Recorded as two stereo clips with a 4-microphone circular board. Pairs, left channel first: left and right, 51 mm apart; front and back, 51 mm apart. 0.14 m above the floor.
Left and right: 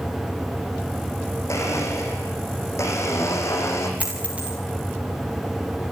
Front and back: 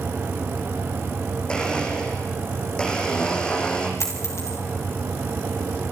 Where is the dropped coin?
25° right, 5 m.